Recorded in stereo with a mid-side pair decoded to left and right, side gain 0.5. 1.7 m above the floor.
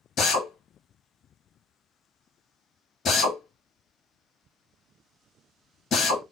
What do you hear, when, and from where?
0.2 s a drill: 50° left, 2 m